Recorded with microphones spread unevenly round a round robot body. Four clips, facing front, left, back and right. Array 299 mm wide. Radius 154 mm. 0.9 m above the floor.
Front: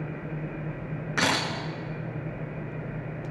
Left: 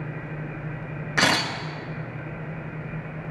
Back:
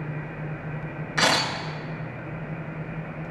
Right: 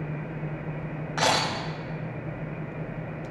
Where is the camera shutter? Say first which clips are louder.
Left 1 dB, back 4 dB; 50° left, 3 m.